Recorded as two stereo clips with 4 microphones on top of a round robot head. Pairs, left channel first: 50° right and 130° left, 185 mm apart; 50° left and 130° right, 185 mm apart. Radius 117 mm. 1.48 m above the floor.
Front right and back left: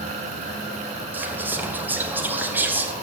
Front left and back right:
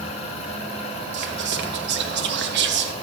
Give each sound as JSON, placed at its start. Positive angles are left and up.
{"t": 1.1, "sound": "whispering", "azimuth_deg": -150, "distance_m": 0.9}